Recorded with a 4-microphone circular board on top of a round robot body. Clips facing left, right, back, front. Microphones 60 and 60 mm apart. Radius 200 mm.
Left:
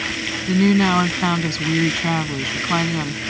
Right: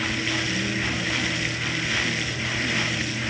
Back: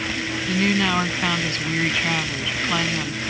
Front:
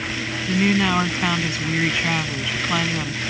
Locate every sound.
0.5 s a woman speaking: 85° left